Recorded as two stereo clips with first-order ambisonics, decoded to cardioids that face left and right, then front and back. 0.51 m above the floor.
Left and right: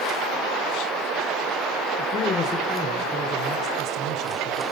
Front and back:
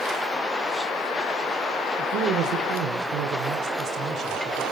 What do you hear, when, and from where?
2.0 s a man speaking: 140° left, 2 m; by 4.6 s 115° right, 2.5 m